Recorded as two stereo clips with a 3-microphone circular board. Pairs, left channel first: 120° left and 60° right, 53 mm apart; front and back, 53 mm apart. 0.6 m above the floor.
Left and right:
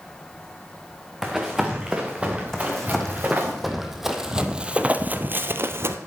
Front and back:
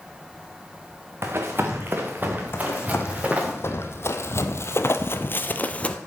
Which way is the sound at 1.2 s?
140° right.